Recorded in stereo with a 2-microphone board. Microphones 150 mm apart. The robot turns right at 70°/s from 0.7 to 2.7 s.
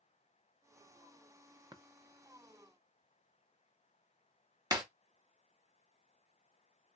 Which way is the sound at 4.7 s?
25° right (ahead or behind).